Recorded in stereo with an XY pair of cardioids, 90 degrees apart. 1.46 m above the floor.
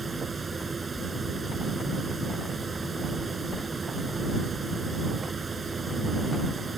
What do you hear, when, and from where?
0.0 s a fan: 30° right